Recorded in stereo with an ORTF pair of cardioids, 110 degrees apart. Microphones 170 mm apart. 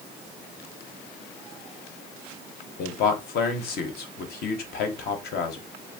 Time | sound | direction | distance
2.8 | a man speaking | 65° left | 0.9 m